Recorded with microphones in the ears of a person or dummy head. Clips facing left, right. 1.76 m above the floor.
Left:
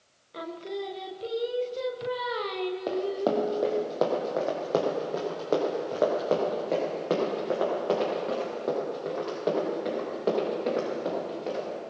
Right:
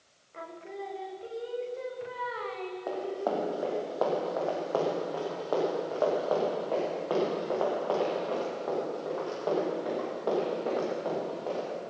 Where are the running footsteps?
45° left (ahead or behind), 3 m; by 11.7 s 30° left (ahead or behind), 9 m.